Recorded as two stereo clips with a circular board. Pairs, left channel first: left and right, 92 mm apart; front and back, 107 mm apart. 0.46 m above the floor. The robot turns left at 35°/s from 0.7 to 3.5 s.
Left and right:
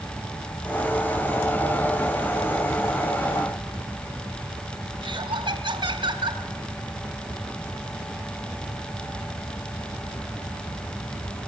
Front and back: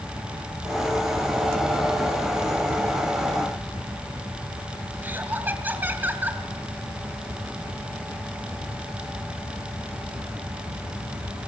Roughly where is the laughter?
Right.